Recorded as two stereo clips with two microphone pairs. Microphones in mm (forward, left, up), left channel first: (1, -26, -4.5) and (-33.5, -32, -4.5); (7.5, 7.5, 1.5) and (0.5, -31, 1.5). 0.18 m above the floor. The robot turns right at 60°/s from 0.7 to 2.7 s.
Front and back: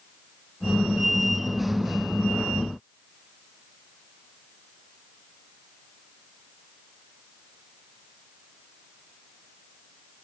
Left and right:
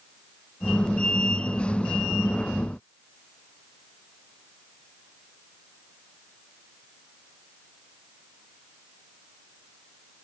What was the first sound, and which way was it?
Only background noise.